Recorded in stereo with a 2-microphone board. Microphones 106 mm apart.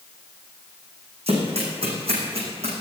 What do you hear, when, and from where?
1.3 s running footsteps: 70° right (ahead or behind), 4.5 m